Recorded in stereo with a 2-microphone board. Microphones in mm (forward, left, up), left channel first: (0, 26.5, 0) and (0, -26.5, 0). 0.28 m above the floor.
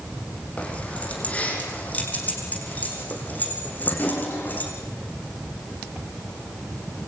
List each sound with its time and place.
0.6 s keys jangling: 25° left (ahead or behind), 8 m; by 4.7 s 35° left (ahead or behind), 9.5 m